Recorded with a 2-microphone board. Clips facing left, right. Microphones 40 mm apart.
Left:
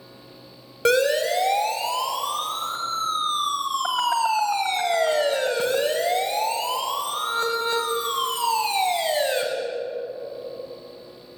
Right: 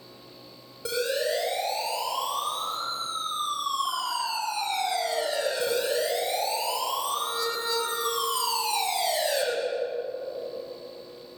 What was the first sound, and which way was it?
A siren, 75° left (ahead or behind).